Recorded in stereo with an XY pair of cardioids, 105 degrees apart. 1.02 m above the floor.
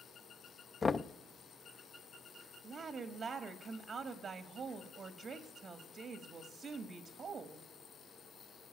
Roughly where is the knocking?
Ahead left.